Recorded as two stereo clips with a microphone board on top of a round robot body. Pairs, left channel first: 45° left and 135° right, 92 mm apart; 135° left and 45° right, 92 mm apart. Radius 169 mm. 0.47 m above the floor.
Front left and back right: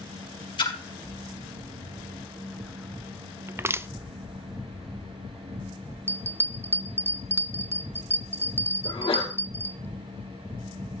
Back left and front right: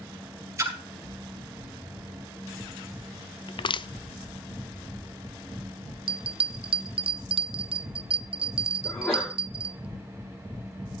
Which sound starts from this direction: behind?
Crushing, at 3.5 s.